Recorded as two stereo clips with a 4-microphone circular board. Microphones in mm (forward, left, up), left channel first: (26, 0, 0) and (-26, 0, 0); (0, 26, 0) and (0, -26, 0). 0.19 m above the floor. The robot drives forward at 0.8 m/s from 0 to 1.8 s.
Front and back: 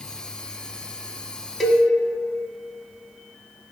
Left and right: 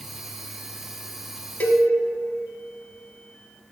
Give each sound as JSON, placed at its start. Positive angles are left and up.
{"t": 1.6, "sound": "a cowbell", "azimuth_deg": 85, "distance_m": 0.5}